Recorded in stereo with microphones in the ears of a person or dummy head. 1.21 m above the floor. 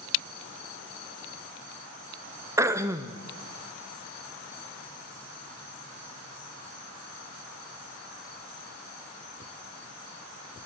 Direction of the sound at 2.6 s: 20° right (ahead or behind).